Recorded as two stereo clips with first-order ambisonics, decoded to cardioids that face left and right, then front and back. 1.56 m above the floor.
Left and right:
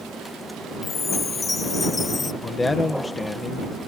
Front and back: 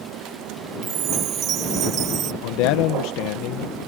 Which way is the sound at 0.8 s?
155° left.